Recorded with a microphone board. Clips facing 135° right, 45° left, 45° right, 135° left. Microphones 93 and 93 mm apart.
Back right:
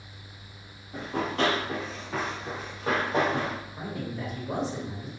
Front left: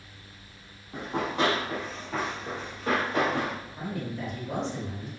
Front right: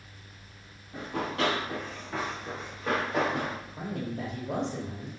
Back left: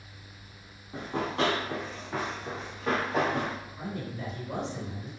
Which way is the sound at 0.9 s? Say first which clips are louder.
Even, back left 1 dB; 90° left.